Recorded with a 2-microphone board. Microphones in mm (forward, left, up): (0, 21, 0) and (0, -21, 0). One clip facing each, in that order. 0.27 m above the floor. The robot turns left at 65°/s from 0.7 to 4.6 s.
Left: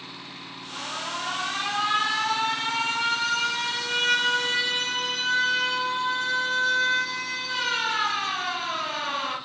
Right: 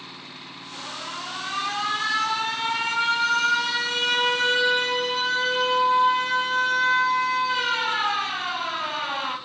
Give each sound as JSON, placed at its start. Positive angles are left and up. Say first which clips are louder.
{"t": 0.7, "sound": "an alarm", "louder": "left 2 dB", "azimuth_deg": 115, "distance_m": 1.0}